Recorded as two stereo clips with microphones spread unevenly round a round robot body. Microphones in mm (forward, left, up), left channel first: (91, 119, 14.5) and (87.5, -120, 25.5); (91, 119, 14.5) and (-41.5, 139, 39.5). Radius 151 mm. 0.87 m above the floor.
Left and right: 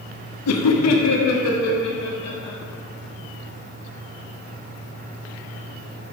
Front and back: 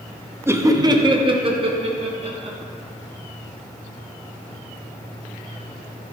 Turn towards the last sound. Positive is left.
turn(degrees=125)